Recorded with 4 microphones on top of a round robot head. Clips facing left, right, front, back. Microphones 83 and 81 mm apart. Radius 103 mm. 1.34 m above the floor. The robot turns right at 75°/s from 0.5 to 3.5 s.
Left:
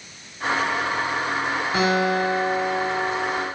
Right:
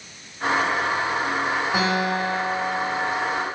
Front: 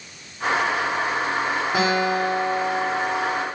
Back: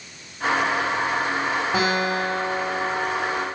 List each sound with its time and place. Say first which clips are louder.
1.7 s a guitar: left 5 dB, front 3 dB; 165° right, 3 m; by 3.5 s 35° right, 3 m